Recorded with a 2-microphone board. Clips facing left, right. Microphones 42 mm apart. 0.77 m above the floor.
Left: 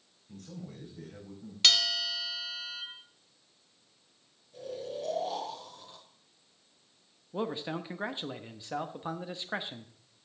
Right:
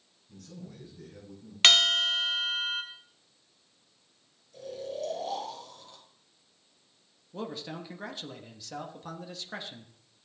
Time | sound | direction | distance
0.3 | a man speaking | 55° left (ahead or behind) | 5 m
1.6 | a bell | 50° right (ahead or behind) | 0.9 m
4.5 | snoring | 15° left (ahead or behind) | 5 m
7.3 | a man speaking | 25° left (ahead or behind) | 0.8 m